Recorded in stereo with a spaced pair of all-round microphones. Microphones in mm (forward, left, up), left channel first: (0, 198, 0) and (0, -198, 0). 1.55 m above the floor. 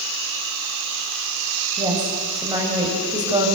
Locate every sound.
1.8 s a woman speaking: 10° right (ahead or behind), 7.5 m